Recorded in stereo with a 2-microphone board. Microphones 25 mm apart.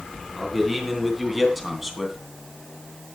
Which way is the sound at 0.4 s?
5° right (ahead or behind).